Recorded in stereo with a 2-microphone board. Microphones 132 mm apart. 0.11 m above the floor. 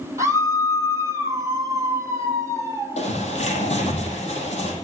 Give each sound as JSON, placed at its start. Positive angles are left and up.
{"t": 0.2, "sound": "a scream", "side_deg": -25, "distance_m": 3.5}
{"t": 3.0, "sound": "a bird", "side_deg": 55, "distance_m": 4.0}